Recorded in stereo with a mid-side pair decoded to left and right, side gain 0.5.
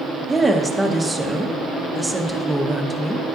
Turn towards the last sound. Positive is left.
turn(degrees=-5)